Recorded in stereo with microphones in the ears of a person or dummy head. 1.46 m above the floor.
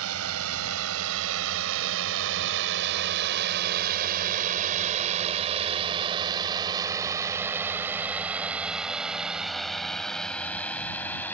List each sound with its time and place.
0.0 s a drone: 75° right (ahead or behind); by 11.3 s 15° left (ahead or behind)